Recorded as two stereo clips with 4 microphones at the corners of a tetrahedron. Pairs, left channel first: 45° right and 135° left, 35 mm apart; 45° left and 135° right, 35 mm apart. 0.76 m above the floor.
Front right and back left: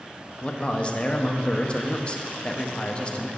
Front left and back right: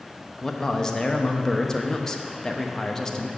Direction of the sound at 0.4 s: 20° right.